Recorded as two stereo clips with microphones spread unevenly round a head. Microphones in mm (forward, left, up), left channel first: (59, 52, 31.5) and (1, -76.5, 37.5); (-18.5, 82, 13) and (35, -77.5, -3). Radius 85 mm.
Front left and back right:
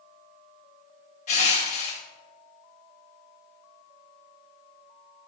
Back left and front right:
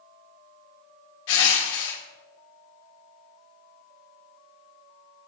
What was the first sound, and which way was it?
Crushing, 100° left.